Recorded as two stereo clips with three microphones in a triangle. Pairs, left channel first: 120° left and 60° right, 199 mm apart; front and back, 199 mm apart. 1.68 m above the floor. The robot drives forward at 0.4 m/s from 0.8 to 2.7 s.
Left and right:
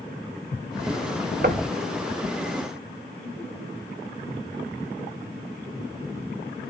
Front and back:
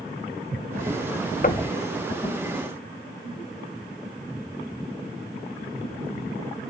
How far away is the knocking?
About 0.8 m.